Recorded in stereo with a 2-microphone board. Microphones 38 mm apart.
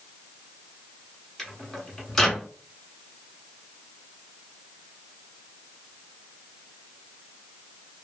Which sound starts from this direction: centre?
A microwave, at 1.4 s.